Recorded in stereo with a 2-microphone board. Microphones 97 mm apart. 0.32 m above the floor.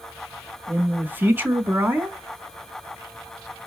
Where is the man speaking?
20° right (ahead or behind), 1.5 m.